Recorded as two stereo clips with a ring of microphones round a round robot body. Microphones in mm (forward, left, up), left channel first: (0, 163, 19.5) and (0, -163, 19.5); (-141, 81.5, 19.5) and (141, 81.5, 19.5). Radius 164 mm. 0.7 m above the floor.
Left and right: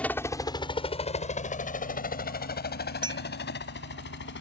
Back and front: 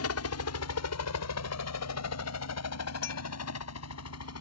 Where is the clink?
165° right.